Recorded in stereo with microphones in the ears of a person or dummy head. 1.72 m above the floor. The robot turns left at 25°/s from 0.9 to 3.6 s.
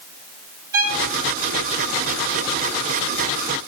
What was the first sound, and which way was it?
A violin, 25° right (ahead or behind).